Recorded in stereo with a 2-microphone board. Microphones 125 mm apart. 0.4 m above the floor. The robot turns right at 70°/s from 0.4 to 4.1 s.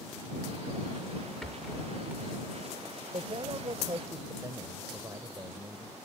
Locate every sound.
1.4 s a rattle: 5° left (ahead or behind); by 2.3 s 25° right (ahead or behind)
3.1 s a man speaking: 105° right; by 6.0 s 40° right